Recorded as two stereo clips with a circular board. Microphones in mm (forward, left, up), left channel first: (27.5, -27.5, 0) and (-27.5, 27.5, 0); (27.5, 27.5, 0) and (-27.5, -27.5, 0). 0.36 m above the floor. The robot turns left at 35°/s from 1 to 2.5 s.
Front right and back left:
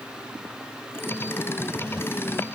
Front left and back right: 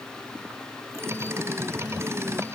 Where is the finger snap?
No finger snap in this recording.